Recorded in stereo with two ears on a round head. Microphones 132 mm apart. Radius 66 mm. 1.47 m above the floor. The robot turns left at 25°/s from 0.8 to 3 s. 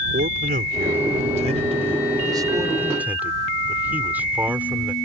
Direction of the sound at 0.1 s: 115° right.